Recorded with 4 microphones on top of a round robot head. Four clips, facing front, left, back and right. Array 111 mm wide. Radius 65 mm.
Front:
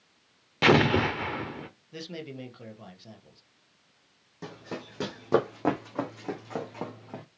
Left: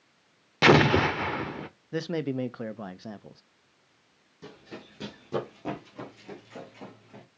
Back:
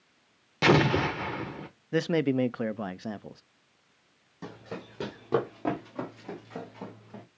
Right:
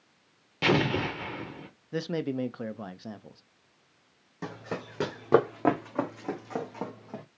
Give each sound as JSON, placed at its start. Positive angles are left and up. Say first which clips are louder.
{"t": 0.6, "sound": "an explosion", "louder": "left 6 dB, front 1 dB", "azimuth_deg": 80, "distance_m": 0.7}
{"t": 1.9, "sound": "a man speaking", "louder": "left 1 dB, back 15 dB", "azimuth_deg": 180, "distance_m": 0.6}
{"t": 4.4, "sound": "running footsteps", "louder": "right 8 dB, front 1 dB", "azimuth_deg": -90, "distance_m": 2.0}